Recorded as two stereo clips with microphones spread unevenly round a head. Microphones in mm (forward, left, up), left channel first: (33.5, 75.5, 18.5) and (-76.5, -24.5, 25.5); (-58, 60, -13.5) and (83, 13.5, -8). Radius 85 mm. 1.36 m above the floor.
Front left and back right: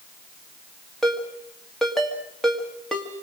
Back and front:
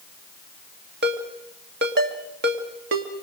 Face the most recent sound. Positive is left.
turn(degrees=-45)